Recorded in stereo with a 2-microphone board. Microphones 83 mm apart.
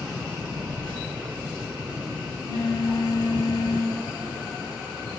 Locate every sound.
0.5 s a phone buzzing: 70° right (ahead or behind), 1.4 m